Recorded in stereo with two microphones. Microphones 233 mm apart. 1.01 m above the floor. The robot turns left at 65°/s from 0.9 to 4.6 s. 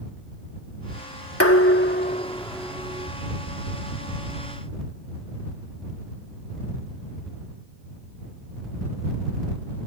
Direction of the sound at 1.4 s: 80° left.